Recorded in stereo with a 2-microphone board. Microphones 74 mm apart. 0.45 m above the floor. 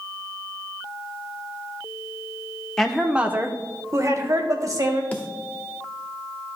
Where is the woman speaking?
10° left (ahead or behind), 0.7 m; by 5.0 s 50° right (ahead or behind), 1.9 m.